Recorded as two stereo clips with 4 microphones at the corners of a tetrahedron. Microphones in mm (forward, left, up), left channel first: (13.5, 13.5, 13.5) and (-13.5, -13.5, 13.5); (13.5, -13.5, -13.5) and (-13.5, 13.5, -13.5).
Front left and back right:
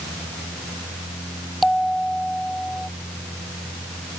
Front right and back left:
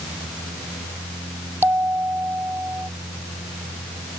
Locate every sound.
1.6 s a bell: 135° left